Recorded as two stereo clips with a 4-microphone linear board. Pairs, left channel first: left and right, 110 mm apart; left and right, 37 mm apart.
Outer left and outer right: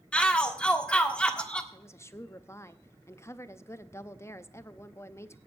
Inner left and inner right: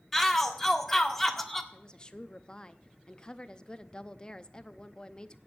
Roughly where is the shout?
Centre.